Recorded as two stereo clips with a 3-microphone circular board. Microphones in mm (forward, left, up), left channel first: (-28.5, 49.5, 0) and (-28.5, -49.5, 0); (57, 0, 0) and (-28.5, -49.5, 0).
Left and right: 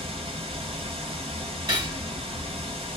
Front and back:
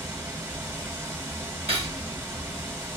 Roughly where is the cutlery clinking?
Behind right.